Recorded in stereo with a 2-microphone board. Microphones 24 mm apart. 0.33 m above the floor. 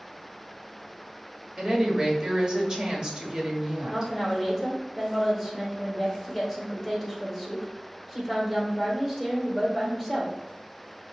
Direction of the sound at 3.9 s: 15° right (ahead or behind).